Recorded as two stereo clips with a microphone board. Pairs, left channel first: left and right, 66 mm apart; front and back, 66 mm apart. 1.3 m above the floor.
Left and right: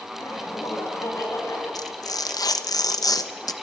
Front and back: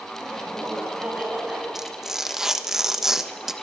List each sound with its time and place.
0.1 s laughter: 100° left, 9.5 m; by 1.6 s 110° left, 9.5 m
1.8 s tearing paper: 95° left, 1.0 m